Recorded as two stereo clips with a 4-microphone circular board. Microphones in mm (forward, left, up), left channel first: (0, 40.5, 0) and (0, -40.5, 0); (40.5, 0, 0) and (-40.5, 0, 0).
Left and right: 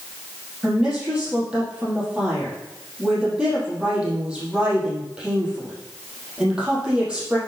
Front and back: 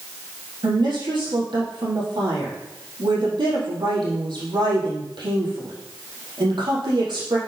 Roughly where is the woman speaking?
Behind.